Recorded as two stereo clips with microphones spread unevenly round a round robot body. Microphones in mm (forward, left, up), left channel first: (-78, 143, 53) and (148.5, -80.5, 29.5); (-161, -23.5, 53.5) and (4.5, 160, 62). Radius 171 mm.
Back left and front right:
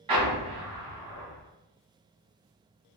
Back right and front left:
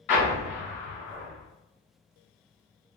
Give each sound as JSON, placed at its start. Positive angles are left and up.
{"t": 0.1, "sound": "an explosion", "azimuth_deg": -120, "distance_m": 2.0}